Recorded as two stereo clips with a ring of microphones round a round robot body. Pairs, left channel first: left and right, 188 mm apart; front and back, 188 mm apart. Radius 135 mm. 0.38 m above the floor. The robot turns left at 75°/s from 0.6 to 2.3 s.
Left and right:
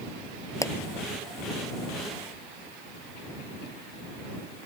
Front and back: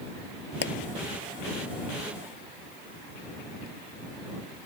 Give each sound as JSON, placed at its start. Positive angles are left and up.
{"t": 0.6, "sound": "a pop", "azimuth_deg": 20}